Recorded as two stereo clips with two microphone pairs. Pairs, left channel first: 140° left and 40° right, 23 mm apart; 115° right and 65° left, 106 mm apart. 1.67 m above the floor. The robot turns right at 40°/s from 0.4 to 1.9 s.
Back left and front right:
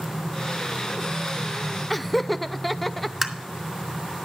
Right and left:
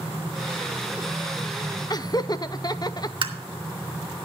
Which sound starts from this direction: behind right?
Laughter, at 1.9 s.